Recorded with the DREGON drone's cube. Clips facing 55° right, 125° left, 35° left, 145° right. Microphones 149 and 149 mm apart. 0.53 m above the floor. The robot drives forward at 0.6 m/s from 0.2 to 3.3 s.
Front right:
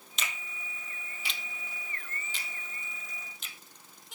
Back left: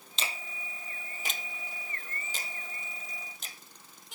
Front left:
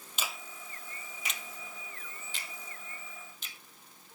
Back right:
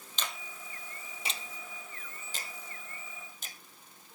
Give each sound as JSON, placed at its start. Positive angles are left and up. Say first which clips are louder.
{"t": 0.2, "sound": "a finger snap", "louder": "back left 2 dB, even", "azimuth_deg": 110}